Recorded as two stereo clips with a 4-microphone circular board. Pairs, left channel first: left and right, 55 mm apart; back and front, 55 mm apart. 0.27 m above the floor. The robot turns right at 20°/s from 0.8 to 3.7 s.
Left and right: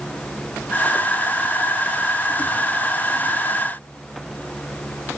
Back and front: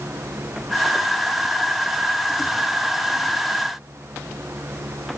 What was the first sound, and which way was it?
Only background noise.